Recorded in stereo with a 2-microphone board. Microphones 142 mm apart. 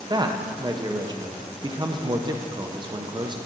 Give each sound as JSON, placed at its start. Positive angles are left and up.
{"t": 0.1, "sound": "a man speaking", "side_deg": -30, "distance_m": 0.6}